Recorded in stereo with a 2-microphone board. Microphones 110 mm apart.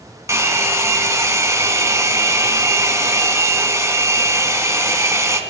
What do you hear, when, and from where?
0.3 s a hair dryer: 25° right (ahead or behind), 1.2 m